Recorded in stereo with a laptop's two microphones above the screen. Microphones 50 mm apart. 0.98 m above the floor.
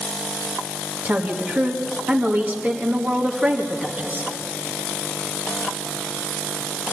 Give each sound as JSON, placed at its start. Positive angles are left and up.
{"t": 1.1, "sound": "a woman speaking", "side_deg": -35, "distance_m": 1.7}